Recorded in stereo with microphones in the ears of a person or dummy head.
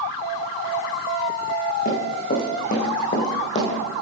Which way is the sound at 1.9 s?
45° left (ahead or behind).